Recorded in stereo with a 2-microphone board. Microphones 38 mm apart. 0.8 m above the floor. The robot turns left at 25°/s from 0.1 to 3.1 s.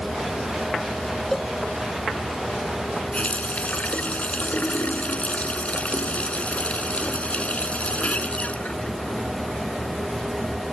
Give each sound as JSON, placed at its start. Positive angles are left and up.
{"t": 1.3, "sound": "a cowbell", "side_deg": 10}
{"t": 3.1, "sound": "a running tap", "side_deg": 35}